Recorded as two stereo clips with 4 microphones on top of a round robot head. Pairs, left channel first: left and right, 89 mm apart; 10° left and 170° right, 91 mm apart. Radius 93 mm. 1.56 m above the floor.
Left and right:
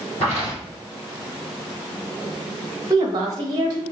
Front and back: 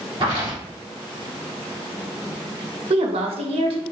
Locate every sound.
0.2 s footsteps: 170° left, 2.5 m
2.9 s a woman speaking: 145° right, 0.9 m